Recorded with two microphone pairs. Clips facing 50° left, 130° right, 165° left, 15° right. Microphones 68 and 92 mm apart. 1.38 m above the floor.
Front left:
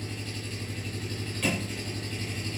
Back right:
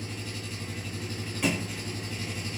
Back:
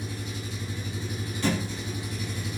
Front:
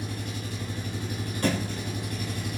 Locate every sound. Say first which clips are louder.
0.0 s an engine running: even, front 1 dB; 50° right, 6.5 m
1.4 s a thud: back right 1 dB, front 1 dB; 55° right, 7 m